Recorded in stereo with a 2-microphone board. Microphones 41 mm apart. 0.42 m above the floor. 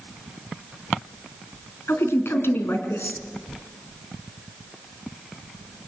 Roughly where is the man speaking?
Left.